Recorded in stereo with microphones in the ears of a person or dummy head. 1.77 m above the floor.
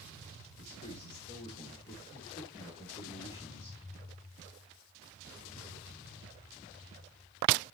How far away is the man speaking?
About 4 m.